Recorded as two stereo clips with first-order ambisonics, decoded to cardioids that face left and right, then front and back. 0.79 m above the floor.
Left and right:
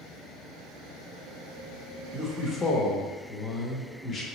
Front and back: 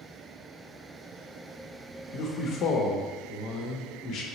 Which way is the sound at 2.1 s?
30° left.